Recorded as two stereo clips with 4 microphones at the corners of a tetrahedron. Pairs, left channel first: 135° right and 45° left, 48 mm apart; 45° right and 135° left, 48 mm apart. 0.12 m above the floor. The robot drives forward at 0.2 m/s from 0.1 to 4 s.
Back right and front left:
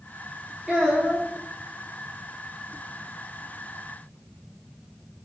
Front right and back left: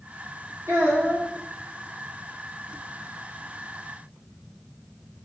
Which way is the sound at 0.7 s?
145° left.